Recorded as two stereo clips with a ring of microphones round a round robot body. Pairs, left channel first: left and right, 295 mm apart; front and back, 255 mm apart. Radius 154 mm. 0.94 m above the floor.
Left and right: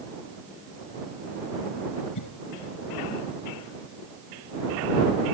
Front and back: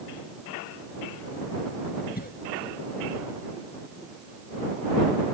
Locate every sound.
2.1 s a cough: 55° left